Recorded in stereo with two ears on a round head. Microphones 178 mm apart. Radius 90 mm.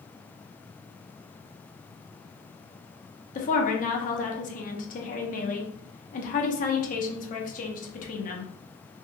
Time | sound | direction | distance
3.4 | a woman speaking | 40° left (ahead or behind) | 0.7 m